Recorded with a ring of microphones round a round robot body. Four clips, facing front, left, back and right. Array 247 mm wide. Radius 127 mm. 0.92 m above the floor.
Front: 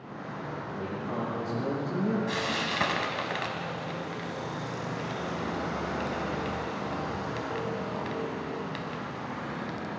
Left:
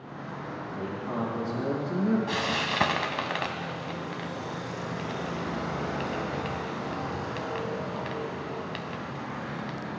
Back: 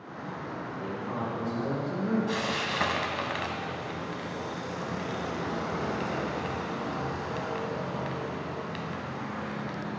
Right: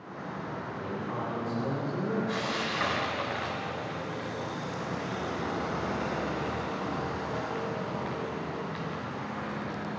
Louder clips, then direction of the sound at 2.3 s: Left 2 dB, even; 85° left.